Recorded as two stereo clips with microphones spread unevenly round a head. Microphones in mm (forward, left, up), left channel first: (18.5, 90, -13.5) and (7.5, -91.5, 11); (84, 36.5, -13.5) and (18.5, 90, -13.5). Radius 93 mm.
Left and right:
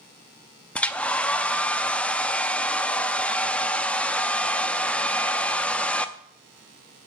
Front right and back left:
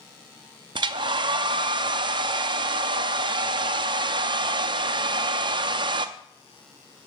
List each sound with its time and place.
0.8 s a hair dryer: 175° left, 0.6 m